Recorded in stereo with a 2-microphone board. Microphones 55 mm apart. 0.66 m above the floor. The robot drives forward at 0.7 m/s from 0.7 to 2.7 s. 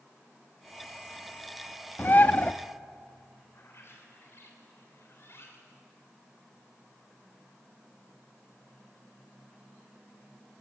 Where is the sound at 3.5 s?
55° left (ahead or behind), 3 m.